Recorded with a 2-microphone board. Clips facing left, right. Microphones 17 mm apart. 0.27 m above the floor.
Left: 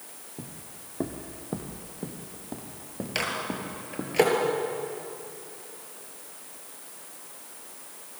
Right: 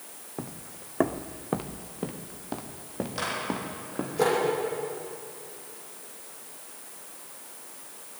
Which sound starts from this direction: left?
A microwave, at 3.1 s.